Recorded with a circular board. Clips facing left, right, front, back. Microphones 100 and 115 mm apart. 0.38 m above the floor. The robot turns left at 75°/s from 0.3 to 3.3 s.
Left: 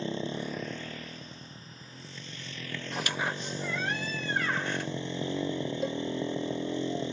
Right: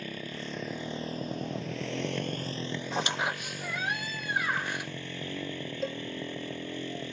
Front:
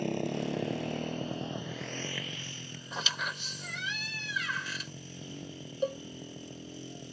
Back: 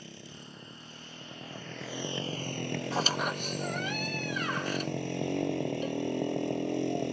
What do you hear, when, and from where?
0.0 s a motorcycle: 25° left; by 7.1 s 160° left
2.9 s a squeak: 135° right; by 4.9 s 165° right
5.8 s a cowbell: 5° left